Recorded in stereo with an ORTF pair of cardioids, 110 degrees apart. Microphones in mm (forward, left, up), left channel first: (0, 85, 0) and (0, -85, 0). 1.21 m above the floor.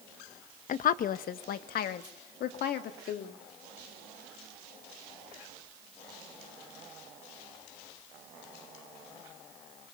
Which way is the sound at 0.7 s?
50° left.